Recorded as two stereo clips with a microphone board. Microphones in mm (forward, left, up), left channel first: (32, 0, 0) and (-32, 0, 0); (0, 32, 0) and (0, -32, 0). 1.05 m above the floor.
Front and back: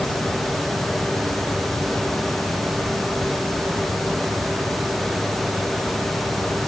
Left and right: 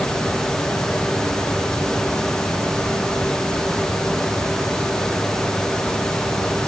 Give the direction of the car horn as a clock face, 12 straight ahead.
I don't hear a car horn.